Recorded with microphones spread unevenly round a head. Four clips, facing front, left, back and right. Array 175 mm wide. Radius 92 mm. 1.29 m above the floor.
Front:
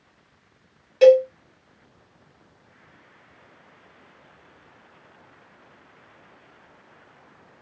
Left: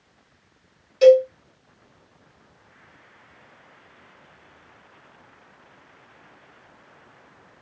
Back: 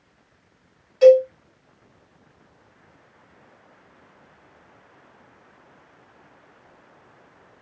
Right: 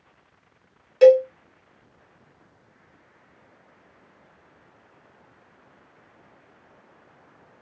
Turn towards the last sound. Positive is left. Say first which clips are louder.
# even, back 1 dB
turn(degrees=-50)